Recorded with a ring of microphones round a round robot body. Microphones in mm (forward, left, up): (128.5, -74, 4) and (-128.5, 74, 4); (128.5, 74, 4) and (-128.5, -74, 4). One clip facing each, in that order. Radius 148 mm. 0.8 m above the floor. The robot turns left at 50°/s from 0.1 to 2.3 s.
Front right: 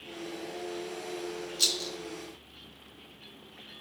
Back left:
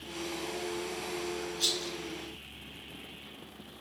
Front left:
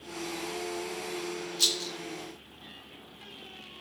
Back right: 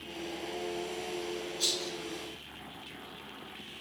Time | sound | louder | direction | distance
1.6 | a rattle | back left 1 dB, even | 5° right | 2 m